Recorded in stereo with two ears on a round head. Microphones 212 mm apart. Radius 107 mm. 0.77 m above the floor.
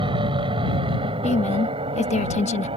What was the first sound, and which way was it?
An aircraft, 20° right (ahead or behind).